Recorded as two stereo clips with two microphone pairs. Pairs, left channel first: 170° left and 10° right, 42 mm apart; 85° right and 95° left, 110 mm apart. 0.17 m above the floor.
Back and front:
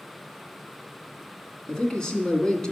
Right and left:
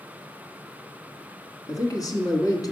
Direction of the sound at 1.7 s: 125° right.